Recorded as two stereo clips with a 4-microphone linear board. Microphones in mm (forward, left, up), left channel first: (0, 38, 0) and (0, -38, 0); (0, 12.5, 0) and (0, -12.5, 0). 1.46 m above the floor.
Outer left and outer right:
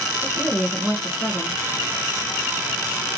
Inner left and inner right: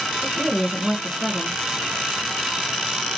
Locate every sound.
0.2 s a woman speaking: 15° left (ahead or behind), 1.5 m